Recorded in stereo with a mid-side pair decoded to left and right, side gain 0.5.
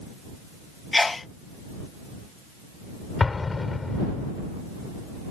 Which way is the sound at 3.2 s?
25° left.